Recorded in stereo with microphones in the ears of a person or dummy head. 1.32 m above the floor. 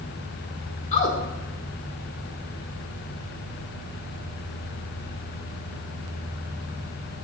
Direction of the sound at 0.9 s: 40° left (ahead or behind).